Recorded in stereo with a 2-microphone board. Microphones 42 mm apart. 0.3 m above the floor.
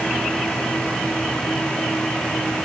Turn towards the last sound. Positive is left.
No sound to turn to.